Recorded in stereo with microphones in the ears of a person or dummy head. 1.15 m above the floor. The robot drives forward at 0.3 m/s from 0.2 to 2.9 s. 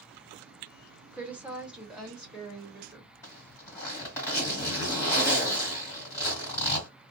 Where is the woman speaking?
5° right (ahead or behind), 0.8 m; by 3.1 s centre (ahead or behind), 1.3 m.